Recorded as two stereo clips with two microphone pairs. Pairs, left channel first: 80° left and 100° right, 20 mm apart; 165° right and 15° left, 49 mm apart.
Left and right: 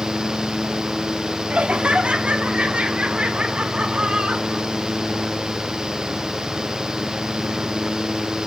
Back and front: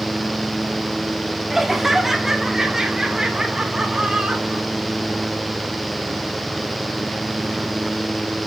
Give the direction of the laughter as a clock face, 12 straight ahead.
2 o'clock.